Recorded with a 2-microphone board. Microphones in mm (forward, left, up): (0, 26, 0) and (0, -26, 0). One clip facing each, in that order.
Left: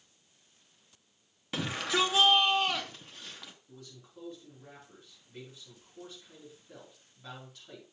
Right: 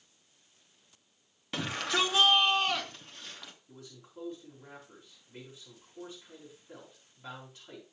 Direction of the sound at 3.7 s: 15° right (ahead or behind).